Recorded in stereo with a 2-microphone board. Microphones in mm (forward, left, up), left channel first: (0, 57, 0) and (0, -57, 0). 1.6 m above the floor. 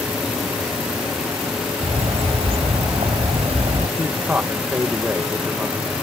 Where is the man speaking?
15° right (ahead or behind).